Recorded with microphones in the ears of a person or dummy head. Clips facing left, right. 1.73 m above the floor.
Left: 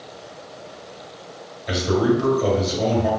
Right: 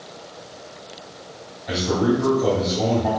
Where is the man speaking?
45° left (ahead or behind), 1.8 m.